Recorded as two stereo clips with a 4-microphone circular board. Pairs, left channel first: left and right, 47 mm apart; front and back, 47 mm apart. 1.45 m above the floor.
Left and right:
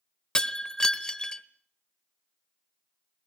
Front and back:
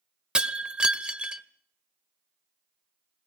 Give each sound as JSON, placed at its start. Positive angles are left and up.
{"t": 0.3, "sound": "breaking glass", "azimuth_deg": 140, "distance_m": 1.3}